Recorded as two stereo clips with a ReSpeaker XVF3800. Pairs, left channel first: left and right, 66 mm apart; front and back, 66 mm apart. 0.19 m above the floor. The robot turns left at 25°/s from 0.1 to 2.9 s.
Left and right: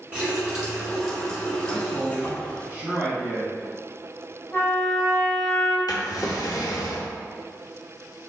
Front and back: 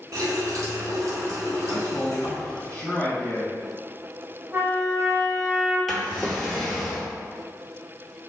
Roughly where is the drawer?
Left.